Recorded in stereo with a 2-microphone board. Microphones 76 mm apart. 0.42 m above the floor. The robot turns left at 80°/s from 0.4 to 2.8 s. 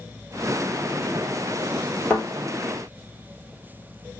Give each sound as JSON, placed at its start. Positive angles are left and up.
{"t": 2.1, "sound": "a thud", "side_deg": 15, "distance_m": 1.3}